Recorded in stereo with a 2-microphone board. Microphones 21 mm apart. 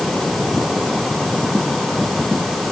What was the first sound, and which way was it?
Only background noise.